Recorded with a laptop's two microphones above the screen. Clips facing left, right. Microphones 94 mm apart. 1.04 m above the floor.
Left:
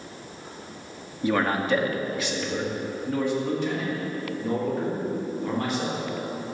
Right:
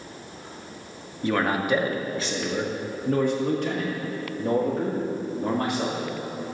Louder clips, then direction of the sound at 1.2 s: Even; 10° left (ahead or behind).